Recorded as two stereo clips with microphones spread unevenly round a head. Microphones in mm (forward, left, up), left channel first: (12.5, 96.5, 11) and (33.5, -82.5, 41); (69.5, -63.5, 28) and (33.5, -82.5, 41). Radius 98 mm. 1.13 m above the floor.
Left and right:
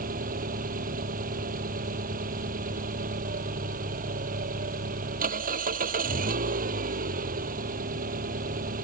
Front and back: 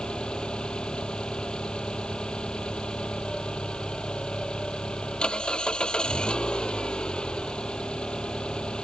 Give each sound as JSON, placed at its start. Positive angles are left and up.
{"t": 0.0, "sound": "an engine running", "azimuth_deg": -40}